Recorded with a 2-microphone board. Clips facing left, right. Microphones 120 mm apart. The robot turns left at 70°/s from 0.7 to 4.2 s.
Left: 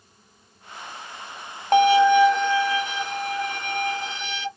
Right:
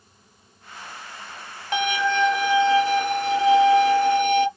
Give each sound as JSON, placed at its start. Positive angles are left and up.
{"t": 1.7, "sound": "a violin", "azimuth_deg": 40, "distance_m": 0.6}